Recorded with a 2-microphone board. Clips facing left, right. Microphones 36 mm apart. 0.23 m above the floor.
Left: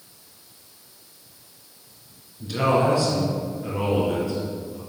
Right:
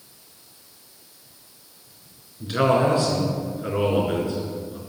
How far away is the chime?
I don't hear a chime.